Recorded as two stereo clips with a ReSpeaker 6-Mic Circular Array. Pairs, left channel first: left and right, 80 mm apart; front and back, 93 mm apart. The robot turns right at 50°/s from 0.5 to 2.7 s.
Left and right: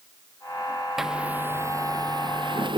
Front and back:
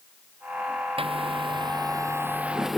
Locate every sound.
1.0 s a zipper: straight behind; by 2.8 s 95° right